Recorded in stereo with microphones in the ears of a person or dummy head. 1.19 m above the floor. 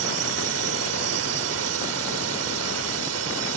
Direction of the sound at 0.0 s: 65° right (ahead or behind).